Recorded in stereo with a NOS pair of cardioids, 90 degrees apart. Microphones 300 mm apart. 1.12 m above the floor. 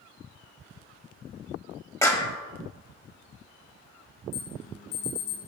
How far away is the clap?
About 1.0 m.